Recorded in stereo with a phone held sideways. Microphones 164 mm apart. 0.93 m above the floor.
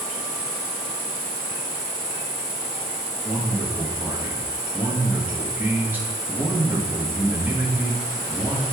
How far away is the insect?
About 1.2 m.